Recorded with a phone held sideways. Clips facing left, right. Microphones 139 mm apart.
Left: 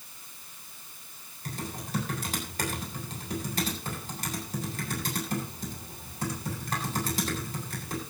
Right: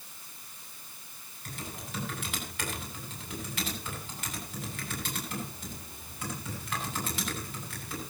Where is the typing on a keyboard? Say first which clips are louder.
Left 5 dB; 40° left (ahead or behind), 9 m.